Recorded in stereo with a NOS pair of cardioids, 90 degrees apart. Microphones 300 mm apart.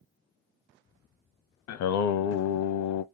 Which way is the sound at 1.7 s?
70° left.